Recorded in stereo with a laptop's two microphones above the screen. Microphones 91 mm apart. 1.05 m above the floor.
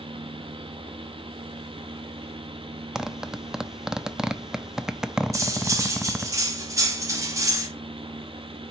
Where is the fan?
75° right (ahead or behind), 0.8 m.